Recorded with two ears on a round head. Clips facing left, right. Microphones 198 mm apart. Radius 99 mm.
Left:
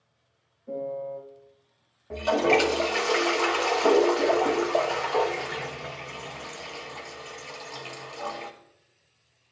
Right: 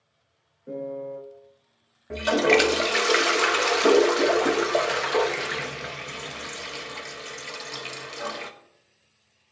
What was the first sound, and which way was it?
A piano, 85° right.